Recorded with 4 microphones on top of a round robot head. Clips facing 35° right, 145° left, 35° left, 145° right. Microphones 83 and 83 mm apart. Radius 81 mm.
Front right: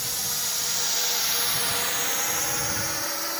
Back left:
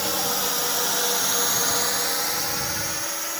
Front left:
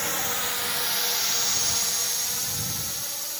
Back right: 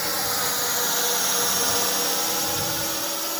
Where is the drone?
140° left; by 3.4 s 115° right.